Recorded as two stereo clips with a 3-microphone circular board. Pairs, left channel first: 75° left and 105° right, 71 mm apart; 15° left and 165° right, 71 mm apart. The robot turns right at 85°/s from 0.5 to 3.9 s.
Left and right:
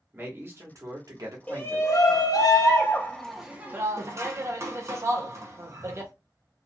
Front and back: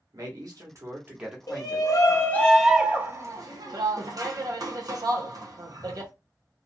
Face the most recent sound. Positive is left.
turn(degrees=-150)